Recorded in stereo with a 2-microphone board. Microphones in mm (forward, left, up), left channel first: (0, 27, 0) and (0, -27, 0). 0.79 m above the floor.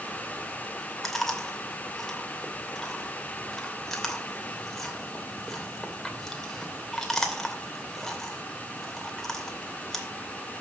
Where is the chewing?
5° left (ahead or behind), 2.5 m.